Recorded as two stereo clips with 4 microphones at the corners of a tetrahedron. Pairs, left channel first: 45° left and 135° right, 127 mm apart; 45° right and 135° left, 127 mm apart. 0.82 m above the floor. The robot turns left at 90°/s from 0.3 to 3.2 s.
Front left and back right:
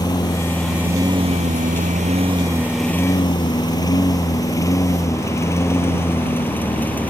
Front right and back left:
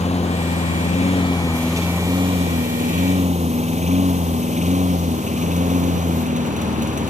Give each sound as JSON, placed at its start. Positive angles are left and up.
{"t": 0.0, "sound": "a lawn mower", "azimuth_deg": -15}